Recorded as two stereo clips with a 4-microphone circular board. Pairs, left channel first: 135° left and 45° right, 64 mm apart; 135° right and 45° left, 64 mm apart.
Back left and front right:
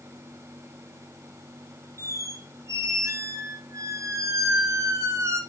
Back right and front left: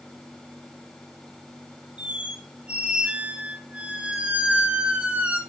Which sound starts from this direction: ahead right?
A squeak, at 2.0 s.